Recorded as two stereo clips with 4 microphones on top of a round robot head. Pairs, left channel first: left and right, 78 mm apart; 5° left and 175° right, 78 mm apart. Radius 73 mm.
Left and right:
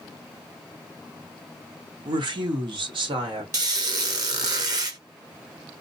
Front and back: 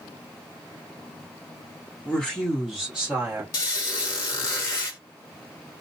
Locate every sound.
2.0 s a woman speaking: 75° right, 1.0 m; by 3.4 s 100° right, 1.5 m
3.5 s a squeak: 50° right, 1.0 m